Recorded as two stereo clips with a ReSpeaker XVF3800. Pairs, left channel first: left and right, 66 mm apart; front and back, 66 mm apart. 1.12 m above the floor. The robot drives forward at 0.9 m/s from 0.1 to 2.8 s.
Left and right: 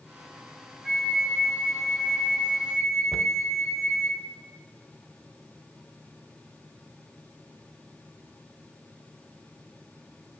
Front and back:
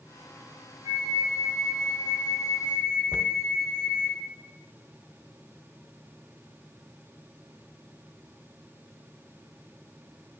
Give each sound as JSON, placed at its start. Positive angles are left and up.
{"t": 0.8, "sound": "a flute", "azimuth_deg": -140, "distance_m": 4.5}
{"t": 3.1, "sound": "a cupboard door", "azimuth_deg": 30, "distance_m": 0.5}